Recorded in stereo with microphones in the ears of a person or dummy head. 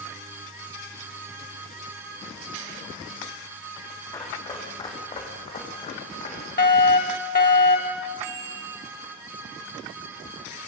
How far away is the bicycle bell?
About 5 m.